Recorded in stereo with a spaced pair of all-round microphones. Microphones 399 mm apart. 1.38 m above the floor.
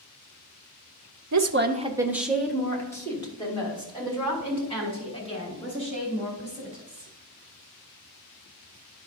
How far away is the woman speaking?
About 0.6 m.